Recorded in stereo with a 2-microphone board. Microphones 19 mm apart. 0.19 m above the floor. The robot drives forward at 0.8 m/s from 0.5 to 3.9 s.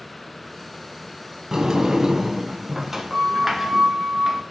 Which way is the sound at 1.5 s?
25° right (ahead or behind).